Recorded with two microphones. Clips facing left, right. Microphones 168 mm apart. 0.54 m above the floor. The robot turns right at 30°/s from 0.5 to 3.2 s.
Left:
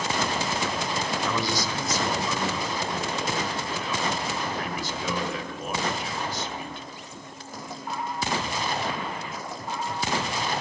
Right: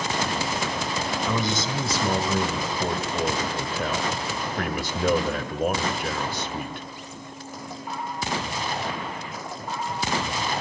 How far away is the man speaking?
About 1.8 m.